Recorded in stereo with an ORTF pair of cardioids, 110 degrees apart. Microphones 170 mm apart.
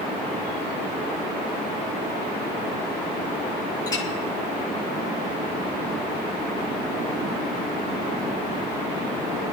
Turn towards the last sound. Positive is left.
turn(degrees=20)